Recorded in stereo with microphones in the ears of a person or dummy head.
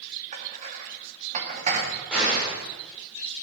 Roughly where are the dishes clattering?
Right.